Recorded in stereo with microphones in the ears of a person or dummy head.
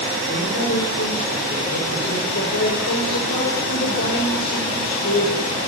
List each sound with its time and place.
0.3 s a man speaking: 55° left (ahead or behind), 6 m